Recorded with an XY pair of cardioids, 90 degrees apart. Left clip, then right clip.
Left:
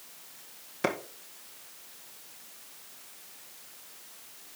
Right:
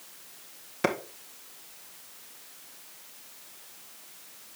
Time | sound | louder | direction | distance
0.8 | a clap | right 2 dB | 15° right | 1.7 m